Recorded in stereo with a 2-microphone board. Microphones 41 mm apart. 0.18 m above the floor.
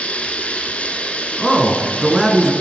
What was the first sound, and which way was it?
Running water, 30° left (ahead or behind).